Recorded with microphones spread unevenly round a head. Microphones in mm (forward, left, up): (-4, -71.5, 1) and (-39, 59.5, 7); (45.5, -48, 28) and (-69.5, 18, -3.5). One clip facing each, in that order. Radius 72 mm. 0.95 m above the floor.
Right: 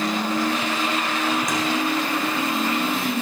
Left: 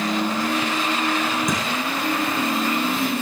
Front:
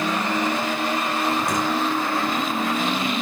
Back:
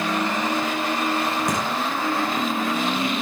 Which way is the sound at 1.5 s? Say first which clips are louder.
Even, front 1 dB; 95° left.